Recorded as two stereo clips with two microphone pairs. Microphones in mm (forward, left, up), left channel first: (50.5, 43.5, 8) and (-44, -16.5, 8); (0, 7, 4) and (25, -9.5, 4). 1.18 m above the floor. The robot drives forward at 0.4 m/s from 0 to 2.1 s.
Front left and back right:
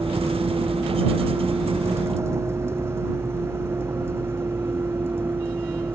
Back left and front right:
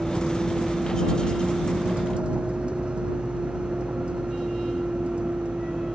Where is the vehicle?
80° right; by 6.0 s 75° right.